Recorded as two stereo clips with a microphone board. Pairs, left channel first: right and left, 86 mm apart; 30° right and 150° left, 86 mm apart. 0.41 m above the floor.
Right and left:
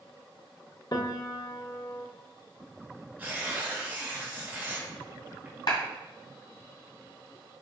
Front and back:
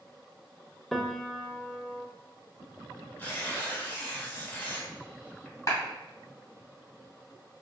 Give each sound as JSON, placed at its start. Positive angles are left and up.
{"t": 0.9, "sound": "a piano", "azimuth_deg": -115, "distance_m": 0.5}
{"t": 3.2, "sound": "tearing paper", "azimuth_deg": 30, "distance_m": 1.1}
{"t": 5.7, "sound": "a clap", "azimuth_deg": -75, "distance_m": 2.0}